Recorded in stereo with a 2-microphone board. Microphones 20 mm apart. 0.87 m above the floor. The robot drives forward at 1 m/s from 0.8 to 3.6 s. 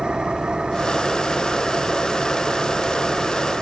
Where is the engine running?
50° right (ahead or behind); by 3.6 s 40° right (ahead or behind).